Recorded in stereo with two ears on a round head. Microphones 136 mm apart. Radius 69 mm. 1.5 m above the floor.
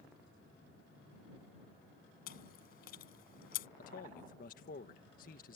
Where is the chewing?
70° left (ahead or behind).